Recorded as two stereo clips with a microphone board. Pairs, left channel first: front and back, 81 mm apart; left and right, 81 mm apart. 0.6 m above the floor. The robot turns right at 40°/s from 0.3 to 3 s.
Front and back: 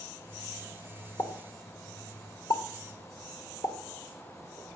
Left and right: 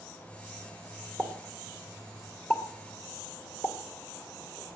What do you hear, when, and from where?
1.2 s a pop: 35° right, 2 m; by 3.8 s 40° left, 2 m